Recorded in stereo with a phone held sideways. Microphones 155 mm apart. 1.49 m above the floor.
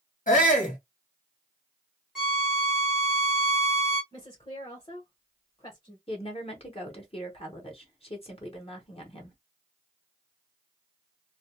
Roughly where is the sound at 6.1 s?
Left.